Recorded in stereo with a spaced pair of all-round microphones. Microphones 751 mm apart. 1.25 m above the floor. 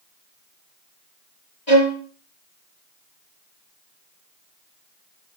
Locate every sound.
1.7 s a violin: 70° left (ahead or behind), 4 m